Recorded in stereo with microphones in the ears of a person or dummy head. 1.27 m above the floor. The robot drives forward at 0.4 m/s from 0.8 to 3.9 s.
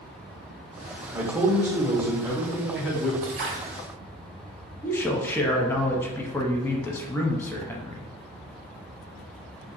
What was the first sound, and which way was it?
A man speaking, 10° right (ahead or behind).